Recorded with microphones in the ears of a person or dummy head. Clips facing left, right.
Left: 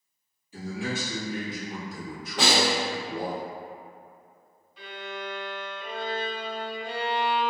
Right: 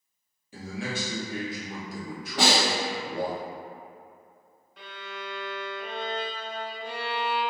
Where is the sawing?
I don't hear sawing.